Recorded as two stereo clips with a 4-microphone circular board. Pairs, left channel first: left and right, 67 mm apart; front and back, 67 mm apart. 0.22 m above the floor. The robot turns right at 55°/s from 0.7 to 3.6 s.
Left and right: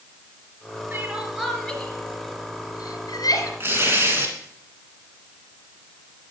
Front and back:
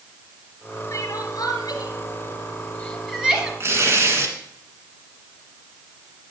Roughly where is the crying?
Ahead right.